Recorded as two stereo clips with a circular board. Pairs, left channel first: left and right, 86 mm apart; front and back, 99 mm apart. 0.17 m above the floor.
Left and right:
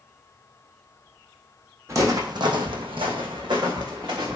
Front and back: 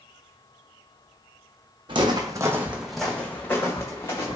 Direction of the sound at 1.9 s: 145° right.